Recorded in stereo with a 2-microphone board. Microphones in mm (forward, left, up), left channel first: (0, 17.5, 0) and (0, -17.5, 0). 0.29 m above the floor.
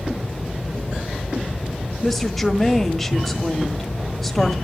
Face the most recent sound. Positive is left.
turn(degrees=5)  # may be behind; listen again after turning